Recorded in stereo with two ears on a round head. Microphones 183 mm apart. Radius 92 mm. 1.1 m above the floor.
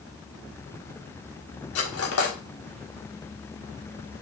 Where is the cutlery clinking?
75° left (ahead or behind), 1.7 m.